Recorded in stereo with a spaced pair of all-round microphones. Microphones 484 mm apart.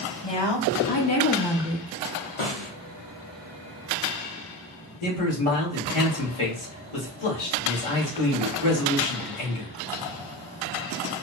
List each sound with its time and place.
0.2 s a woman speaking: 60° left (ahead or behind), 1.2 m; by 2.3 s 55° right (ahead or behind), 0.7 m
2.4 s a snare drum: 75° left (ahead or behind), 0.8 m
5.0 s a man speaking: 85° left, 1.2 m